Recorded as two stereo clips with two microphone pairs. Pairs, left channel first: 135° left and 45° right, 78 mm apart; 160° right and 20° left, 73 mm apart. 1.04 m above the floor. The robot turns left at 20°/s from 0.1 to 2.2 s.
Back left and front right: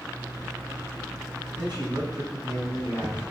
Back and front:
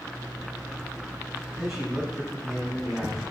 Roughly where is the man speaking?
Ahead right.